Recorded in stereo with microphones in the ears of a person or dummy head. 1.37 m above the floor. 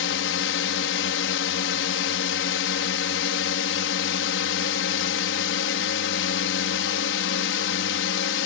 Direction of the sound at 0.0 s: 60° left (ahead or behind).